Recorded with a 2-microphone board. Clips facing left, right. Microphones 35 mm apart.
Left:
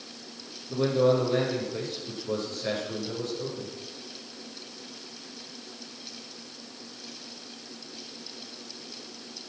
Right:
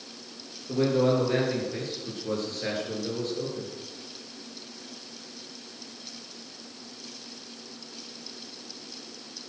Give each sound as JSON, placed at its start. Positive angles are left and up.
{"t": 0.7, "sound": "a man speaking", "side_deg": -70, "distance_m": 8.5}